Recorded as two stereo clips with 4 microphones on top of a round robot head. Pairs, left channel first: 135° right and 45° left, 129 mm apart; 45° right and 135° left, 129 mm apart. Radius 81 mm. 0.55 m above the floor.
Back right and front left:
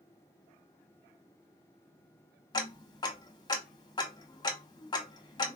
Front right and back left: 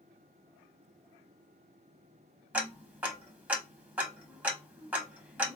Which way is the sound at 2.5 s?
155° right.